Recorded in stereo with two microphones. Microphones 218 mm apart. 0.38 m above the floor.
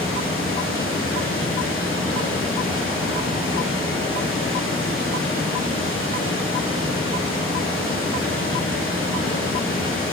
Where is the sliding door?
No sliding door in this recording.